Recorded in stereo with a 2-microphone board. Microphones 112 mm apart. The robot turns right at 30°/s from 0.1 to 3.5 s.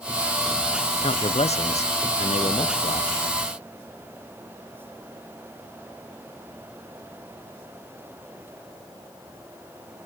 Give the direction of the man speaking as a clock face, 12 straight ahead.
10 o'clock.